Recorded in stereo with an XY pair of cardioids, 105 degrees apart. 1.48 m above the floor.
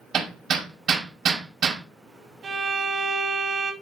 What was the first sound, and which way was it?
Hammering, 65° right.